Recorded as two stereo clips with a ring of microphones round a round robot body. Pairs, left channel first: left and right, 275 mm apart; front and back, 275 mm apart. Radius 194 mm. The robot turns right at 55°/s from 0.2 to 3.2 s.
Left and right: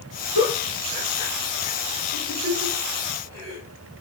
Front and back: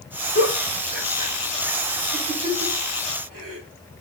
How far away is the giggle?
About 2.0 m.